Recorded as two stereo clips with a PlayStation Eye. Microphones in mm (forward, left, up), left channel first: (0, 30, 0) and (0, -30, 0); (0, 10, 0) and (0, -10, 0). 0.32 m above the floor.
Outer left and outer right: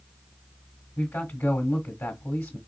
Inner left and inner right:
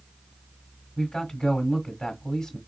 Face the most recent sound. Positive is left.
turn(degrees=40)  # may be behind; listen again after turning